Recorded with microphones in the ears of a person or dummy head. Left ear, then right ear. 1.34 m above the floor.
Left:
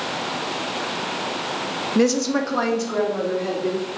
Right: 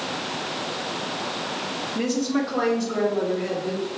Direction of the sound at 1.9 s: 65° left (ahead or behind).